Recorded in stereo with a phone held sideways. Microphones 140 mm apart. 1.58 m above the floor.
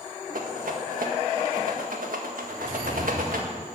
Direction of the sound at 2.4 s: 25° right (ahead or behind).